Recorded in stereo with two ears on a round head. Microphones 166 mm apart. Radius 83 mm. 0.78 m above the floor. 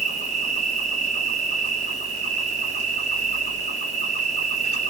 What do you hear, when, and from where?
0.0 s an insect: 40° right (ahead or behind), 1.2 m